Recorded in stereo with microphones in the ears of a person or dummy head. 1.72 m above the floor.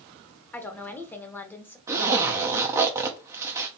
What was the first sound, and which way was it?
A woman speaking, 10° left (ahead or behind).